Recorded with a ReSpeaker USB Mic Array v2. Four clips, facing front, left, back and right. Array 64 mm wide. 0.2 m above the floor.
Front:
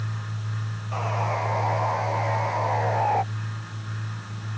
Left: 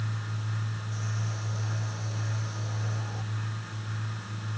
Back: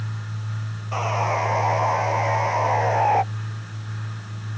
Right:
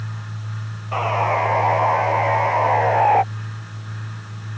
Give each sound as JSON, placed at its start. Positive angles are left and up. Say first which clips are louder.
{"t": 0.9, "sound": "sawing", "louder": "right 24 dB, back 4 dB", "azimuth_deg": -105}